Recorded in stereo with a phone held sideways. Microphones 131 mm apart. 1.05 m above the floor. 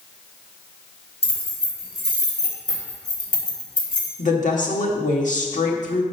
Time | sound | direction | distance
1.2 | keys jangling | 50° left (ahead or behind) | 2.5 m
4.2 | a woman speaking | 75° left (ahead or behind) | 1.5 m